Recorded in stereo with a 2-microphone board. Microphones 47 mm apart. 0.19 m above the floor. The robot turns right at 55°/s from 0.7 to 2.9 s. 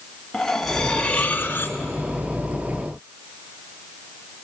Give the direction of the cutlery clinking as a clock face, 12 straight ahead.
12 o'clock.